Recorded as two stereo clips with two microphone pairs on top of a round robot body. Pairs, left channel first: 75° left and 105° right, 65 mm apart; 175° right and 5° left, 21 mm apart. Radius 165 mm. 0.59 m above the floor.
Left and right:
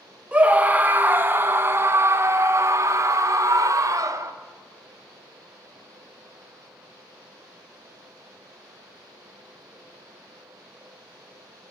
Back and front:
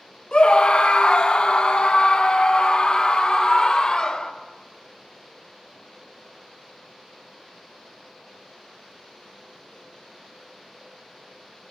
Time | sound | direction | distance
0.3 | a scream | 170° right | 2 m